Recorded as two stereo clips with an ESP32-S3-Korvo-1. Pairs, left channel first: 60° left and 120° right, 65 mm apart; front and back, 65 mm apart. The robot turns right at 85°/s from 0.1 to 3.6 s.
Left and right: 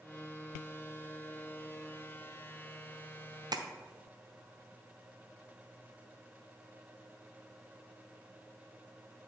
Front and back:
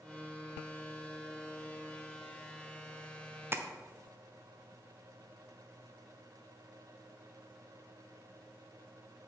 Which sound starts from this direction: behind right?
Tapping, at 3.5 s.